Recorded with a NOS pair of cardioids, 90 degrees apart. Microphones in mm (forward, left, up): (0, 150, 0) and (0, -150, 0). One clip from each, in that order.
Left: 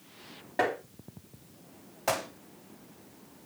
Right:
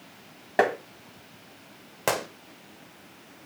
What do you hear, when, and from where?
0.6 s tapping: 70° right, 2.0 m
2.1 s a gunshot: 65° right, 1.7 m